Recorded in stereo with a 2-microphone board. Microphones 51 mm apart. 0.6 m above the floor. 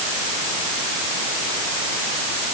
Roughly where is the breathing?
No breathing in this recording.